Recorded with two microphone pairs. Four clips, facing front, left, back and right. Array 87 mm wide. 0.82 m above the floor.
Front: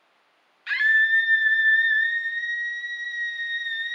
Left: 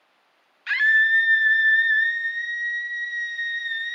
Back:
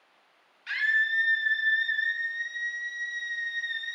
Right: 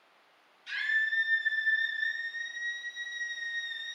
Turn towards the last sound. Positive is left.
turn(degrees=70)